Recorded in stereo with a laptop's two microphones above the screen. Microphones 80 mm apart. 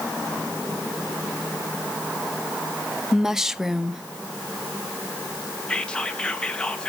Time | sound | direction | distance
3.1 | a woman speaking | 5° right (ahead or behind) | 0.7 m
5.7 | whispering | 10° left (ahead or behind) | 1.2 m